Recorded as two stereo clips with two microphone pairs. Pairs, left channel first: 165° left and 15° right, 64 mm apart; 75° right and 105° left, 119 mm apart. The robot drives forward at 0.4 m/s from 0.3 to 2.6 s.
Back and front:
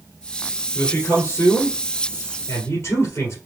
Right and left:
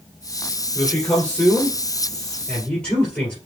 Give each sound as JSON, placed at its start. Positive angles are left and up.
{"t": 0.8, "sound": "a man speaking", "azimuth_deg": -150, "distance_m": 2.0}